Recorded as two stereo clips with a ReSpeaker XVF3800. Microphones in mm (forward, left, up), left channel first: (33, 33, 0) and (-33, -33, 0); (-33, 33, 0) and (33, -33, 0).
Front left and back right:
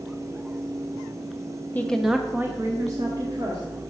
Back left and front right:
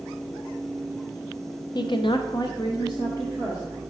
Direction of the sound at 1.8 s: 110° left.